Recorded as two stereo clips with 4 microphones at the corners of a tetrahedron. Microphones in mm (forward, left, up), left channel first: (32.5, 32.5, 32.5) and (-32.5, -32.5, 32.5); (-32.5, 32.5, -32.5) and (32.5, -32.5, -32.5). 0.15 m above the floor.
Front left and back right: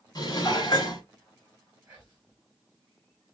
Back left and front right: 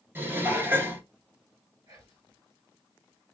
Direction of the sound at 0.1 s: 15° left.